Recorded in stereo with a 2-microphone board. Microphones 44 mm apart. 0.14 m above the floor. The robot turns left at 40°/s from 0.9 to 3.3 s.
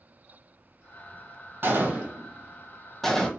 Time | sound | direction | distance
1.6 | a gunshot | 50° right (ahead or behind) | 0.9 m